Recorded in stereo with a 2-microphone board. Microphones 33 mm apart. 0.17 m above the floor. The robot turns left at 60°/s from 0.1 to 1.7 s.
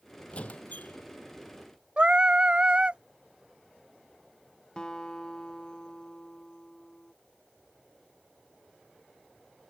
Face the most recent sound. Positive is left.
turn(degrees=25)  # may be behind; listen again after turning